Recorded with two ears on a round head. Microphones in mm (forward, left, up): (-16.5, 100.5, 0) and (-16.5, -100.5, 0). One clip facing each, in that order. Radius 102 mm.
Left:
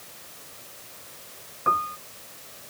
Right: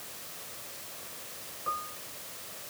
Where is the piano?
75° left (ahead or behind).